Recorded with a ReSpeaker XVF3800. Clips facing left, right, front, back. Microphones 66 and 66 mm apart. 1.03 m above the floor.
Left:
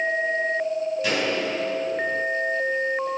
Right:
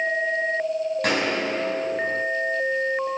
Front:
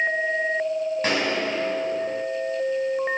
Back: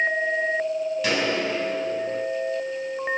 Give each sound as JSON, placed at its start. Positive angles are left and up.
{"t": 1.0, "sound": "a gunshot", "azimuth_deg": -55, "distance_m": 5.0}